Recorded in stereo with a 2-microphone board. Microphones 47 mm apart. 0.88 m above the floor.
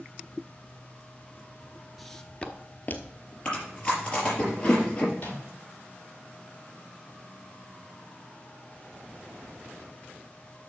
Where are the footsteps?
Centre (ahead or behind), 0.8 m; by 3.4 s 40° left (ahead or behind), 1.4 m.